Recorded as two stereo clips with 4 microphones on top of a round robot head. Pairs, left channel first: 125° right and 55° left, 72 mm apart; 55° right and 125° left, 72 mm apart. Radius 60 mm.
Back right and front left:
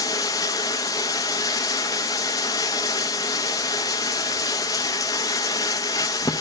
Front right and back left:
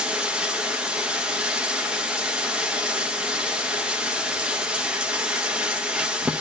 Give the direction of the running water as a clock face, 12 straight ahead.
5 o'clock.